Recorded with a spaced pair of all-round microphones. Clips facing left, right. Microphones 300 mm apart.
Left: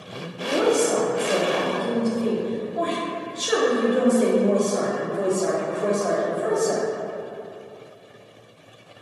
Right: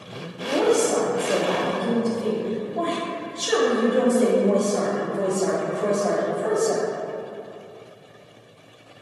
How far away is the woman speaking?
About 0.6 m.